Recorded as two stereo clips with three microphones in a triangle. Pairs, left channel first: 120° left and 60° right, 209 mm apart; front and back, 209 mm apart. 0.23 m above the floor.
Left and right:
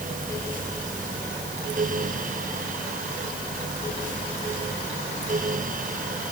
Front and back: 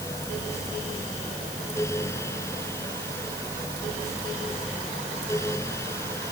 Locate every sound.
Only background noise.